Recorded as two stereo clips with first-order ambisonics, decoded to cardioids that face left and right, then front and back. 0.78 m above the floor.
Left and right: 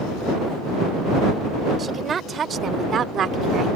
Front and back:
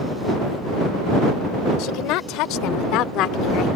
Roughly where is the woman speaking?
Ahead.